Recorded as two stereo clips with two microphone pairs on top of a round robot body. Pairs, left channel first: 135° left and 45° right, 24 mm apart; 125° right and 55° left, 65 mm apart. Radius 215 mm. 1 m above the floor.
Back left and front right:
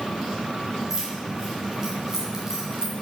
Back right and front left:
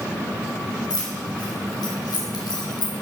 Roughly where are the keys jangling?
Behind right.